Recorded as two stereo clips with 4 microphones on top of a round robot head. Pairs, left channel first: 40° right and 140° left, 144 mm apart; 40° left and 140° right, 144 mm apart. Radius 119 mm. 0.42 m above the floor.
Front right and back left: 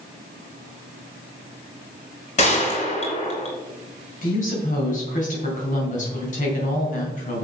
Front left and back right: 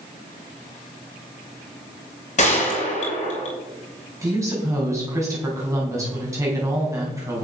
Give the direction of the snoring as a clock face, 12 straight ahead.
I don't hear snoring.